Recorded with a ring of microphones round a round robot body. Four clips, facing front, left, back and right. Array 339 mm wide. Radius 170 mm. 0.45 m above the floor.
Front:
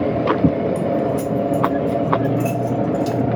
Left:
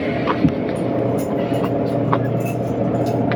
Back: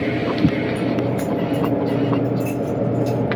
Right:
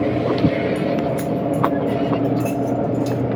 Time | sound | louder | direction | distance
0.8 | keys jangling | left 1 dB, front 1 dB | 35° right | 3 m